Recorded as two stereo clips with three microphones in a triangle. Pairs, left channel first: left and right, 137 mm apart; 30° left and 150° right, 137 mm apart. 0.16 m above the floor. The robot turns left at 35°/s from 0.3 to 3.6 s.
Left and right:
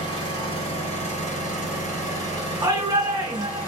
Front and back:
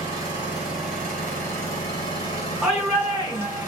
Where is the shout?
75° right, 1.5 m; by 3.7 s 110° right, 1.5 m.